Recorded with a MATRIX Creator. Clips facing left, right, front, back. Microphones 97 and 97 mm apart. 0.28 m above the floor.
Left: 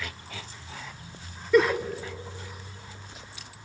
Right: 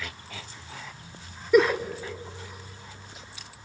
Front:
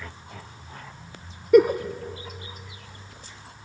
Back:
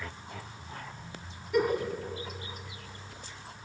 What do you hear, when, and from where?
1.5 s a giggle: 10° right, 0.6 m